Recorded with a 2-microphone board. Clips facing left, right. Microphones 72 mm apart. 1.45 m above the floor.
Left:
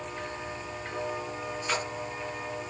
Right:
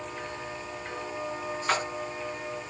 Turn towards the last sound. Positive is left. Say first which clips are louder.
# right 4 dB
turn(degrees=-60)  # may be behind; listen again after turning